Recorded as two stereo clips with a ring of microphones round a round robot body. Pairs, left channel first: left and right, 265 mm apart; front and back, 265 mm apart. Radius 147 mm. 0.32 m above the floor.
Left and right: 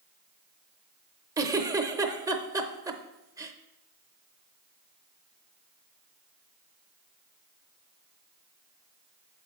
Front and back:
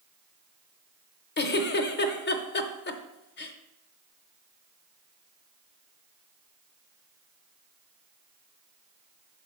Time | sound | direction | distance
1.4 | a giggle | 20° right | 0.7 m